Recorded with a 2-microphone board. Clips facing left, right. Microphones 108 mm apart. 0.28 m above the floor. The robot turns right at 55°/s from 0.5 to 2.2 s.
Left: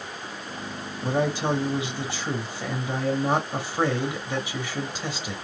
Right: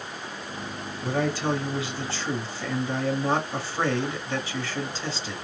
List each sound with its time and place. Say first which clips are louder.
1.0 s a man speaking: left 1 dB; 20° left (ahead or behind), 0.9 m; by 5.4 s 15° left (ahead or behind), 0.9 m